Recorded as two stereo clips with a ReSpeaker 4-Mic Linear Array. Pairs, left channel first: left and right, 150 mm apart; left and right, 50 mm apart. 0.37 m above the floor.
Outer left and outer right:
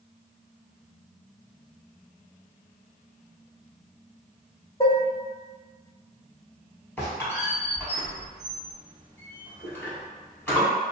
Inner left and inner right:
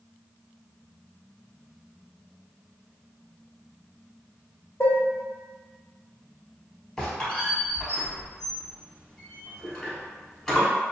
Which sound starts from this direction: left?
Dishes clattering, at 4.8 s.